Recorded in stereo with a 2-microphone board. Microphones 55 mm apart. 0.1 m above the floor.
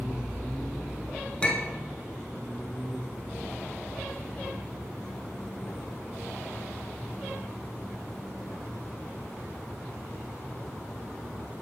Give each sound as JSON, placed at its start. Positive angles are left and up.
{"t": 1.4, "sound": "a clink", "side_deg": 20, "distance_m": 0.8}